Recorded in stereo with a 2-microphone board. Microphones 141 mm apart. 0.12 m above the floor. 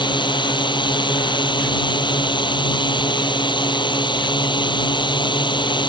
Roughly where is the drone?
Left.